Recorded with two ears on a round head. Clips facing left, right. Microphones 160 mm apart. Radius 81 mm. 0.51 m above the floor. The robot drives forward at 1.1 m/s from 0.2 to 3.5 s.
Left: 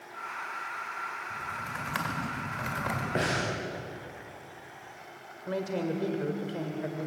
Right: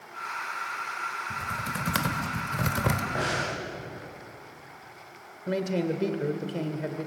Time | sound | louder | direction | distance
1.3 | typing on a keyboard | right 4 dB | 40° right (ahead or behind) | 3 m
3.1 | breathing | even | 30° left (ahead or behind) | 9 m
5.5 | a man speaking | right 4 dB | 25° right (ahead or behind) | 1.9 m